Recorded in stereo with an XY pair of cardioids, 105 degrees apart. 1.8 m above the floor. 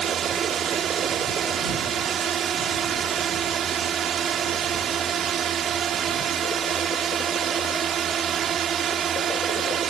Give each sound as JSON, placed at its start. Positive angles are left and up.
{"t": 0.0, "sound": "a drone", "azimuth_deg": -55}